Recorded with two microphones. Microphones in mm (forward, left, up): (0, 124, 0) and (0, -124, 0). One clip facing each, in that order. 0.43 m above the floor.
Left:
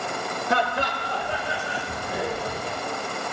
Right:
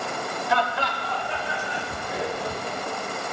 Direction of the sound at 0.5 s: 55° left (ahead or behind).